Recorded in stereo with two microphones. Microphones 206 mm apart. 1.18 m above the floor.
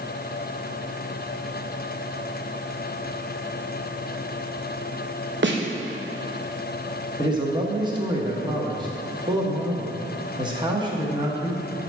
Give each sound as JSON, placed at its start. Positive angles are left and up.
{"t": 5.4, "sound": "a snare drum", "side_deg": -60, "distance_m": 0.9}
{"t": 7.2, "sound": "a man speaking", "side_deg": -20, "distance_m": 1.3}